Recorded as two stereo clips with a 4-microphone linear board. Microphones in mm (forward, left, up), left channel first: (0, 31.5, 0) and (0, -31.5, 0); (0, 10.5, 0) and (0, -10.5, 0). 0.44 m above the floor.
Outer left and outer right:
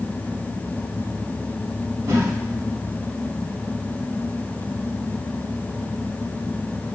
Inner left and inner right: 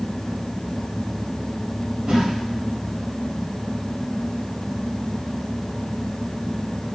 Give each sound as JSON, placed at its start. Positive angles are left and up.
{"t": 2.1, "sound": "a whoosh", "side_deg": -45, "distance_m": 0.9}